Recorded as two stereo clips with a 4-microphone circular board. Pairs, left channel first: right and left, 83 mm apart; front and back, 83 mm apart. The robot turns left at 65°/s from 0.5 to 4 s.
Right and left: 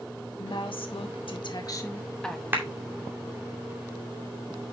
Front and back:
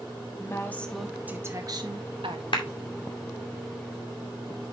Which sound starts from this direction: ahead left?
A clap, at 2.5 s.